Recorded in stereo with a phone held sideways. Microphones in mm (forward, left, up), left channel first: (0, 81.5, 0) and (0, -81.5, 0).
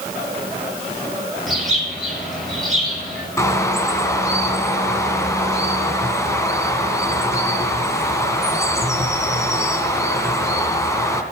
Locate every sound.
1.5 s a bird: centre (ahead or behind), 6.5 m
3.4 s a bird: 20° left (ahead or behind), 2 m